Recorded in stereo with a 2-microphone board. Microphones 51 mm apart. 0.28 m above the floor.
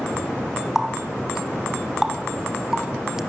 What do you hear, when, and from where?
0.8 s a running tap: 10° right (ahead or behind), 1.5 m